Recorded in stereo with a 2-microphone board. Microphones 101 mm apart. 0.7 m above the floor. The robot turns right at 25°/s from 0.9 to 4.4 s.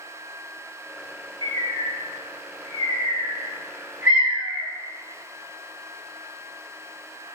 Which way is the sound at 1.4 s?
55° right (ahead or behind).